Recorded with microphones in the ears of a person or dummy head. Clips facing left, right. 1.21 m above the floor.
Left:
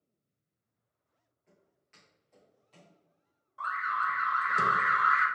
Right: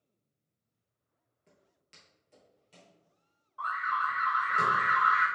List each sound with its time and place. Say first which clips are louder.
1.5 s footsteps: right 1 dB; 40° right (ahead or behind), 1.5 m; by 3.0 s 25° right (ahead or behind), 2.5 m
3.6 s an alarm: right 1 dB; 25° left (ahead or behind), 0.9 m